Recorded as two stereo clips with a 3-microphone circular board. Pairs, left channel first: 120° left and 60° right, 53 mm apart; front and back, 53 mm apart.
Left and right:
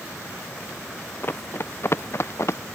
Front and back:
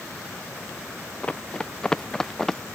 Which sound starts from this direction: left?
Running footsteps, at 1.2 s.